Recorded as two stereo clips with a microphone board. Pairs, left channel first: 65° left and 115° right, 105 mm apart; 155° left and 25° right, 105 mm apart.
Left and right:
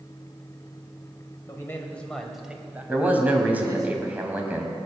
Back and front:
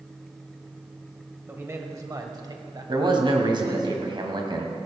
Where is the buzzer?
No buzzer in this recording.